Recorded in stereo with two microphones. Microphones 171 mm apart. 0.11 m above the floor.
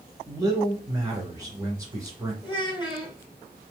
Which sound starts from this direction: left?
A child speaking, at 2.4 s.